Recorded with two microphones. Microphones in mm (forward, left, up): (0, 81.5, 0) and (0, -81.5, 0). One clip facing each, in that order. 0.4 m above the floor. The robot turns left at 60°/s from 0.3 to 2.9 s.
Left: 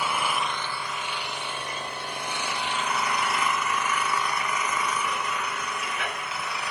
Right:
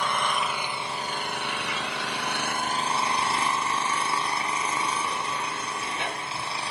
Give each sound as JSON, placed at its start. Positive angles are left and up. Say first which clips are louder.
{"t": 0.0, "sound": "an engine running", "louder": "even", "azimuth_deg": 5, "distance_m": 1.3}